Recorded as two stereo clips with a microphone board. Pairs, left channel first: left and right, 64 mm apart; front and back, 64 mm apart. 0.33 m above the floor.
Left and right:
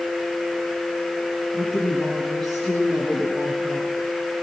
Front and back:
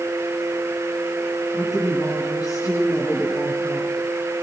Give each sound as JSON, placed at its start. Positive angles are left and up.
{"t": 1.5, "sound": "a woman speaking", "azimuth_deg": 10, "distance_m": 5.0}